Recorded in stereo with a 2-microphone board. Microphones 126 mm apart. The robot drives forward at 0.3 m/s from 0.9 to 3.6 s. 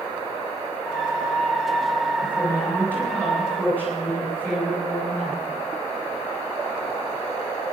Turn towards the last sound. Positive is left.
turn(degrees=15)  # may be behind; listen again after turning